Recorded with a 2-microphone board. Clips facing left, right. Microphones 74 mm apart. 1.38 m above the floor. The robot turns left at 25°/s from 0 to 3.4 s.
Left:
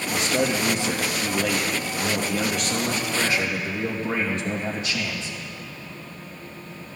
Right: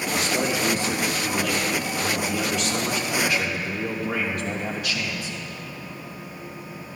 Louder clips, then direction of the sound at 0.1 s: Left 2 dB; 110° left.